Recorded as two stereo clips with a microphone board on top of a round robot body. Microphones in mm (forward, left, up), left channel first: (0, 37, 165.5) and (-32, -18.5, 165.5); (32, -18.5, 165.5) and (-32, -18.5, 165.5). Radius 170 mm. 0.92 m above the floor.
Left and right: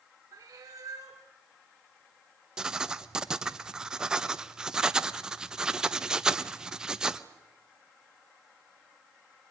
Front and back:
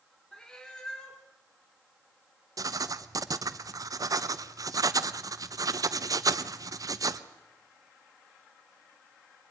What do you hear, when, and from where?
0.3 s a cat meowing: 80° right, 1.7 m
2.6 s writing: 165° left, 1.1 m